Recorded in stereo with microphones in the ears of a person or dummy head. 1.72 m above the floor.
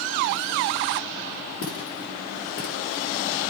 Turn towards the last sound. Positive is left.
turn(degrees=65)  # may be behind; listen again after turning